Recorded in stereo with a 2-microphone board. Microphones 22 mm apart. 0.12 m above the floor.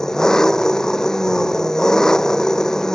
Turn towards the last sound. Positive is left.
turn(degrees=25)  # may be behind; listen again after turning